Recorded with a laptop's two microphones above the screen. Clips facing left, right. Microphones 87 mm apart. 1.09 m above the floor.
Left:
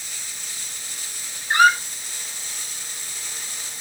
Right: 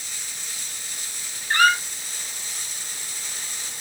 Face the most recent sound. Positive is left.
turn(degrees=15)  # may be behind; listen again after turning